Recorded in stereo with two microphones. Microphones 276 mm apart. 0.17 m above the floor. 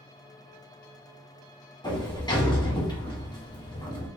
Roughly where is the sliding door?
Centre.